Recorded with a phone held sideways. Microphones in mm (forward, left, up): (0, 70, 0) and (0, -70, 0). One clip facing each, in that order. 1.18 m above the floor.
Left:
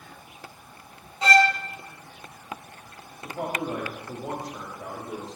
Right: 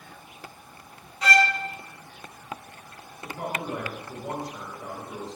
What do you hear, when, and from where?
1.2 s a violin: 25° left (ahead or behind), 0.6 m
3.2 s a man speaking: 80° left, 2.5 m